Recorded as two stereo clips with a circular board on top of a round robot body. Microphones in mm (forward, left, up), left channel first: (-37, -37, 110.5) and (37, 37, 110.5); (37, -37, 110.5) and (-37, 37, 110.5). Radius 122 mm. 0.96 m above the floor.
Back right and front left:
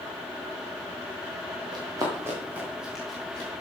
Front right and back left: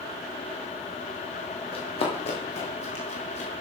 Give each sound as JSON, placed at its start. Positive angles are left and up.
{"t": 1.7, "sound": "running footsteps", "azimuth_deg": -10, "distance_m": 2.0}